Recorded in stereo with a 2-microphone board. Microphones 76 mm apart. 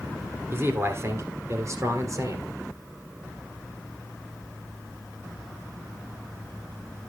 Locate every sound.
0.5 s a man speaking: 35° right (ahead or behind), 2 m; by 2.5 s 45° right (ahead or behind), 3 m